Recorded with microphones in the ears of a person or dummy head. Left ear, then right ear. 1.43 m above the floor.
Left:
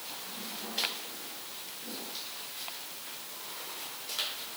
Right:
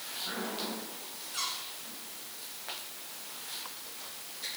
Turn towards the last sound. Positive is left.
No sound to turn to.